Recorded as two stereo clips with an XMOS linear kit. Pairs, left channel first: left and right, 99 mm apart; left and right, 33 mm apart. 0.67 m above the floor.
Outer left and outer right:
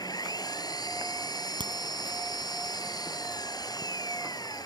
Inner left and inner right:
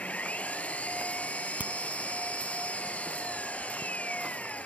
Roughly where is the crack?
Right.